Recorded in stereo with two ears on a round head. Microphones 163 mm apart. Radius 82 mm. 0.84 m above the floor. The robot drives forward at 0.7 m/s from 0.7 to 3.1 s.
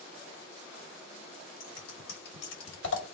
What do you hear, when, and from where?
1.6 s scissors: 45° left (ahead or behind), 1.8 m; by 3.0 s 70° left (ahead or behind), 1.4 m